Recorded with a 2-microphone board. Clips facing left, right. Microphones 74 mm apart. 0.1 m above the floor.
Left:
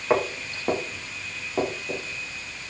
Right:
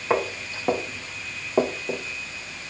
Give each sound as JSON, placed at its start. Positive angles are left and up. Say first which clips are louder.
{"t": 0.1, "sound": "footsteps", "louder": "left 1 dB", "side_deg": 0, "distance_m": 3.0}